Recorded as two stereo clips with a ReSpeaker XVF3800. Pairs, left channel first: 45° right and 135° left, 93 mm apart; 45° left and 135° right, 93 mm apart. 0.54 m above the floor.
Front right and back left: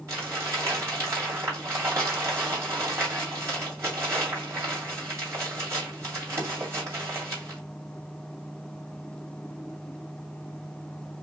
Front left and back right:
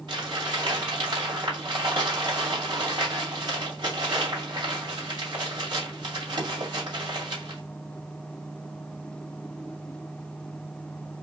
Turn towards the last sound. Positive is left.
turn(degrees=-170)